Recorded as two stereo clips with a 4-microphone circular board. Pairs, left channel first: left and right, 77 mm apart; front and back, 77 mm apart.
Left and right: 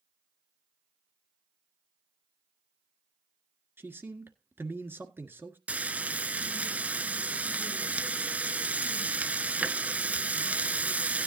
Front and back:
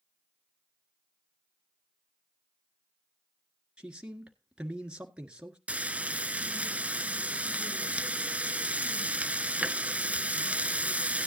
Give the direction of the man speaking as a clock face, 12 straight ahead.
4 o'clock.